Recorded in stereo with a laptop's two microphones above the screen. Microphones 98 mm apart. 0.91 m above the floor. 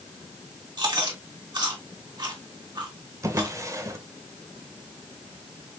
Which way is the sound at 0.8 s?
45° right (ahead or behind).